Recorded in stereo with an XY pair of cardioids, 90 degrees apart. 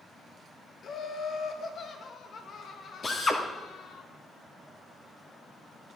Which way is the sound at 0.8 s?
60° left.